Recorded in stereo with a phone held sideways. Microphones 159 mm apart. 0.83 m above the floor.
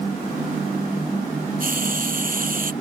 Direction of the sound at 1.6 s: 65° right (ahead or behind).